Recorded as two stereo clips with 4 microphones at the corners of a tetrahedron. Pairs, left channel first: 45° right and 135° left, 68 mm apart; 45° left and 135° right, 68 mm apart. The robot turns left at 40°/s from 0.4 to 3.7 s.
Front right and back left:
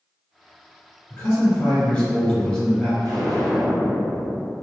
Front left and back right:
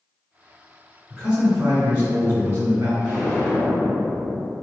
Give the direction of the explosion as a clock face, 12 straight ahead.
7 o'clock.